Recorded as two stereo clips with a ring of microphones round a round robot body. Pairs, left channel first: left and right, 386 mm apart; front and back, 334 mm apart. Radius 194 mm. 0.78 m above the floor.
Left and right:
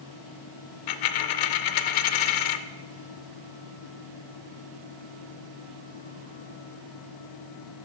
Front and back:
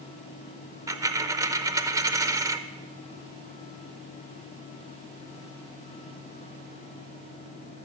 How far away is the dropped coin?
About 0.6 m.